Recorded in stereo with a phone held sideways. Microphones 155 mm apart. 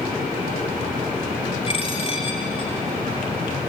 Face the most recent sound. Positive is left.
turn(degrees=40)  # may be behind; listen again after turning